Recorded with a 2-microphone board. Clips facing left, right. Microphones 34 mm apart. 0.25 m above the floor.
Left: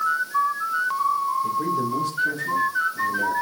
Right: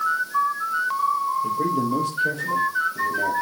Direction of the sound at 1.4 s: 80° right.